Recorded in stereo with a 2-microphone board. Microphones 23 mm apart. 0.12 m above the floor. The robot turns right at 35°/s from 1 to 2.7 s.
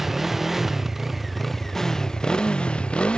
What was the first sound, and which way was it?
A motorcycle, 5° right.